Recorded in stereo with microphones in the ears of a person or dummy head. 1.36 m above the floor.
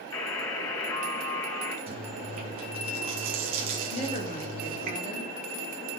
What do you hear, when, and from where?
0.1 s a buzzer: 20° left (ahead or behind), 3 m
1.9 s chewing: 45° right (ahead or behind), 1.5 m
3.9 s a woman speaking: 45° left (ahead or behind), 1.9 m